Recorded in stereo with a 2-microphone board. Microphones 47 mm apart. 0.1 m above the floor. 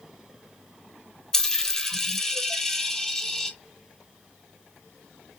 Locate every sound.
1.3 s a dropped coin: 10° left (ahead or behind), 0.5 m